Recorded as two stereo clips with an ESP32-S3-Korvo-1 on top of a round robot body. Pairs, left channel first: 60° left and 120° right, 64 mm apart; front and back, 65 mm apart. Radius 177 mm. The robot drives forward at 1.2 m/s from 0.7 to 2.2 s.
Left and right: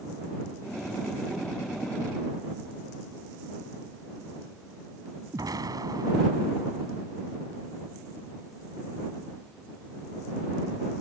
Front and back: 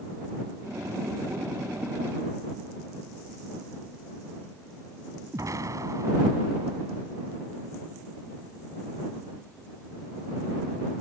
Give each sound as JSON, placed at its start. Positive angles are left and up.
{"t": 5.3, "sound": "an explosion", "azimuth_deg": -145}